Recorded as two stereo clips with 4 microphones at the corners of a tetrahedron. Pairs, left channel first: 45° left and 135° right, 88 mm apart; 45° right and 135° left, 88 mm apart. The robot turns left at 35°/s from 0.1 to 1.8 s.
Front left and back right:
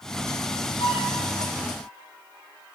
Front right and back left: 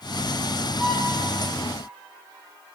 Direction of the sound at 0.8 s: 40° left.